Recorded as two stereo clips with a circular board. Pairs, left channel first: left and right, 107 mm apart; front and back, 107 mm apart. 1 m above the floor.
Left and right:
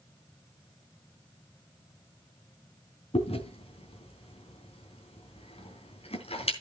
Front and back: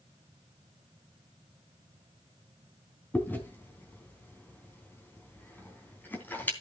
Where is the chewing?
70° left, 3 m.